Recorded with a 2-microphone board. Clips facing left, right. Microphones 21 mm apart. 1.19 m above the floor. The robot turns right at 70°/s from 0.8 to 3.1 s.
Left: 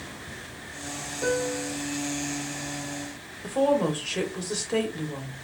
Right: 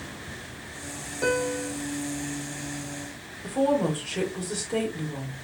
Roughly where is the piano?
Behind right.